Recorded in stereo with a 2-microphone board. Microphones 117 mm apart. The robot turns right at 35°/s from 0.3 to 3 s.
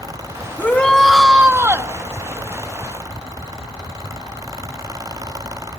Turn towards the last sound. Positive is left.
turn(degrees=-115)